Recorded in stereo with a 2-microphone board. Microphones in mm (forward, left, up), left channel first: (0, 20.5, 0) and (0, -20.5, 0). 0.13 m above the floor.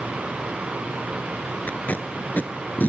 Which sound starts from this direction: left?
Tape being pulled, at 1.7 s.